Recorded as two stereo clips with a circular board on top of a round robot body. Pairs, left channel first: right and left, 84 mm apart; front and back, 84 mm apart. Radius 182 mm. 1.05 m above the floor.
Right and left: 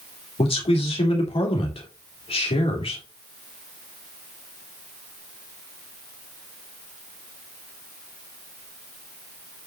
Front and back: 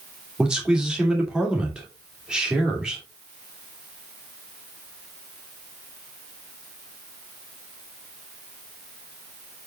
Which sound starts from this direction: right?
A man speaking, at 0.4 s.